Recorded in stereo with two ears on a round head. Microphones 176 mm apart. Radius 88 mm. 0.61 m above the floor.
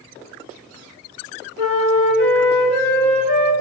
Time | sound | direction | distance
1.6 | a flute | 55° right (ahead or behind) | 3.5 m